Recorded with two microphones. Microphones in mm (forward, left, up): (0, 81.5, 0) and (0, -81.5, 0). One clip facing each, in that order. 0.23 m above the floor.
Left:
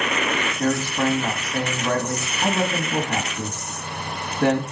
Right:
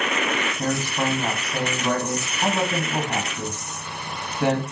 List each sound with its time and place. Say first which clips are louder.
0.6 s a man speaking: left 5 dB; 10° right (ahead or behind), 1.7 m